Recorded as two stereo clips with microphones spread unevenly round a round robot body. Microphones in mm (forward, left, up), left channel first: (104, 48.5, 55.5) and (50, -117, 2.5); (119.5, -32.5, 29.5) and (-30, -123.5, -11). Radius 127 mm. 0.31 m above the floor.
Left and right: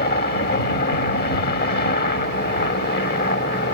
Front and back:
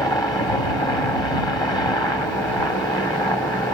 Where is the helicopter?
110° left.